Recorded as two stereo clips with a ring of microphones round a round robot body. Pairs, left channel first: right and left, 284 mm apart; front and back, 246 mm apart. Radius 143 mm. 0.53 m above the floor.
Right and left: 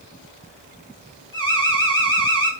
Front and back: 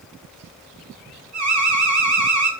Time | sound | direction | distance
1.3 | an alarm | 165° right | 5.5 m